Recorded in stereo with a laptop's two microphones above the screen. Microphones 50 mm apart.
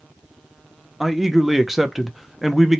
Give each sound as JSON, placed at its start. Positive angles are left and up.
{"t": 1.0, "sound": "a man speaking", "side_deg": -5, "distance_m": 0.5}